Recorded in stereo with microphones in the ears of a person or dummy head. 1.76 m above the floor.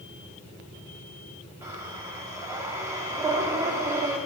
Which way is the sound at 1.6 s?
20° right (ahead or behind).